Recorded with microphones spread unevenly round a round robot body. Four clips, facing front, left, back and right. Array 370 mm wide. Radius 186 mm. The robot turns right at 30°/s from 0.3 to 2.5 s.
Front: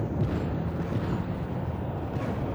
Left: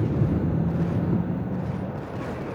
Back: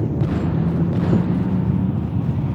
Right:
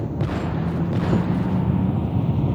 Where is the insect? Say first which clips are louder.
Left 1 dB, back 8 dB; 165° left; by 2.5 s 130° right.